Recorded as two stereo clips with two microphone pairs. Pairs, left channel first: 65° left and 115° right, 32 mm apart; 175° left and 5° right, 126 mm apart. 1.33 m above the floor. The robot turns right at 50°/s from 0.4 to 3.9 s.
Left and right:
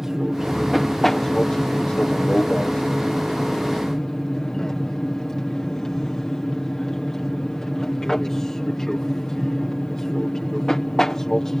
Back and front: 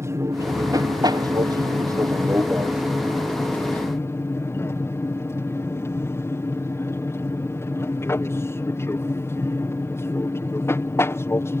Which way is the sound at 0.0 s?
50° right.